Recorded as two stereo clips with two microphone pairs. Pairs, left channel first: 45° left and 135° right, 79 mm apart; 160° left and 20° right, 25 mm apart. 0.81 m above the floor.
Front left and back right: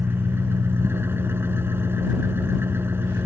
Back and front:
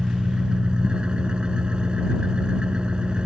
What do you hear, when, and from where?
0.0 s an engine running: 70° right